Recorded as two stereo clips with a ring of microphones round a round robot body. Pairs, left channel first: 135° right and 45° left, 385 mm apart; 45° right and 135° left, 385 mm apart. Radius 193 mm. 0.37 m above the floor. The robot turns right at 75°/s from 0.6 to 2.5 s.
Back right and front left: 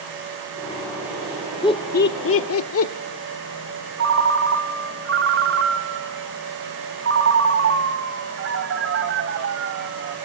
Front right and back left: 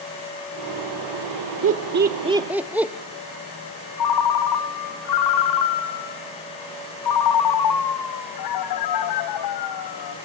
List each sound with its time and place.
1.6 s laughter: 155° left, 1.0 m; by 2.9 s 140° right, 1.0 m
4.0 s a ringtone: 10° right, 1.6 m